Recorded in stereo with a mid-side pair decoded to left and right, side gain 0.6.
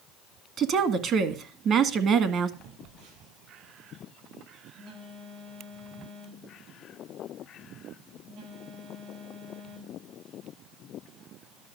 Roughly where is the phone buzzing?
Ahead right.